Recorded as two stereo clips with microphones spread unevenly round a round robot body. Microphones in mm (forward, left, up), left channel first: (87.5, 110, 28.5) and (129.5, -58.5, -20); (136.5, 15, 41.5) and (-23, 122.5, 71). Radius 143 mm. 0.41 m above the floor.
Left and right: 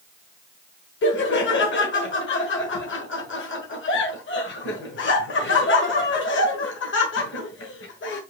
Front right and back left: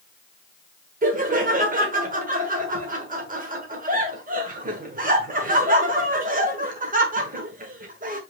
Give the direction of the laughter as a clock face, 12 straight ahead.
9 o'clock.